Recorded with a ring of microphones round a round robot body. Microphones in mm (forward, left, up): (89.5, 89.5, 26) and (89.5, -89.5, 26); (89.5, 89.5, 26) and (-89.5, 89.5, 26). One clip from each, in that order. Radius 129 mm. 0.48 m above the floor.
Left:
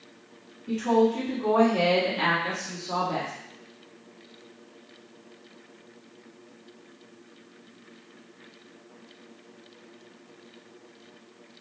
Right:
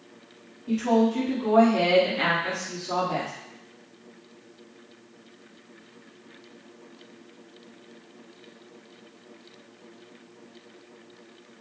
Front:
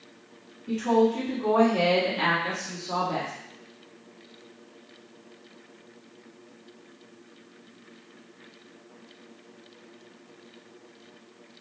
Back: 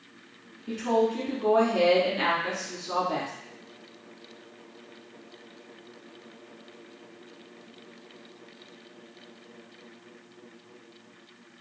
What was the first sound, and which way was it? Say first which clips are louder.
A woman speaking: left 1 dB, front 2 dB; 155° right.